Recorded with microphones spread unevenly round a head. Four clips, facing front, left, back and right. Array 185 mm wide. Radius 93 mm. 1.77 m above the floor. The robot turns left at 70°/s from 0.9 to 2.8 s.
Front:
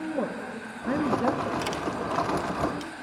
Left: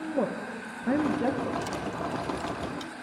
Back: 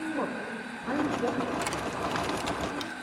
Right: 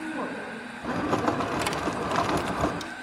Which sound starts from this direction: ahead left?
A woman speaking, at 0.2 s.